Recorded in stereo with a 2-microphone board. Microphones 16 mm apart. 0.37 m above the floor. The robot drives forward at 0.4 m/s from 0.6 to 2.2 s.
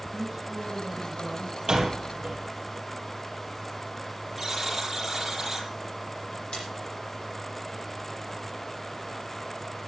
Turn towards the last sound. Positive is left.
turn(degrees=85)